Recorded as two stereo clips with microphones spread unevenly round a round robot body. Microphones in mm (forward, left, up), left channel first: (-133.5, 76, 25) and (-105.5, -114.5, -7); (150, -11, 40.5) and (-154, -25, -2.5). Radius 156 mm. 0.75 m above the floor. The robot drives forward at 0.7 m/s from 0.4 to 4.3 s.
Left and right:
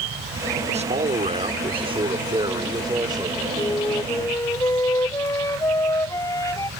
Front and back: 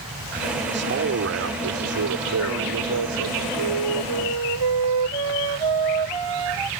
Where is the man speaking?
130° right; by 3.5 s 150° right.